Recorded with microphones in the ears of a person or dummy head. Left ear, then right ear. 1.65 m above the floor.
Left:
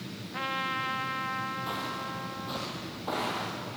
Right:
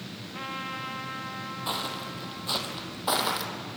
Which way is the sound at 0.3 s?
20° left (ahead or behind).